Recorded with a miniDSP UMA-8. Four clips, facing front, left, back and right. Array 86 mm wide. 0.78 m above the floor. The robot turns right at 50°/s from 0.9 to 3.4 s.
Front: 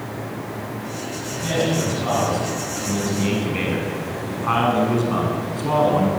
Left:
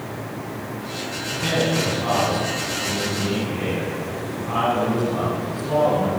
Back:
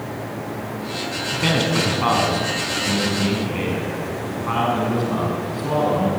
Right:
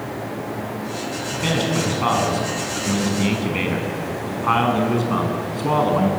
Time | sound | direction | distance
1.3 | a man speaking | 175° right | 7 m